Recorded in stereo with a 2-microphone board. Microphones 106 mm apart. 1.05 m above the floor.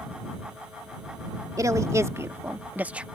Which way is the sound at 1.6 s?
35° right (ahead or behind).